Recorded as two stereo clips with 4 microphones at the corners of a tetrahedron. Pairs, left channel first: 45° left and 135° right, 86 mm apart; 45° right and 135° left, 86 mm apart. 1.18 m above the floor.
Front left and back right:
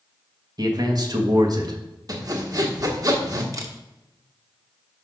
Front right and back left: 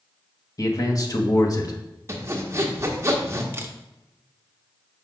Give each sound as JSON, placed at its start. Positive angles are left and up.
{"t": 0.6, "sound": "a man speaking", "azimuth_deg": -90, "distance_m": 1.4}
{"t": 2.1, "sound": "sawing", "azimuth_deg": -170, "distance_m": 1.2}
{"t": 3.5, "sound": "a camera shutter", "azimuth_deg": -170, "distance_m": 0.9}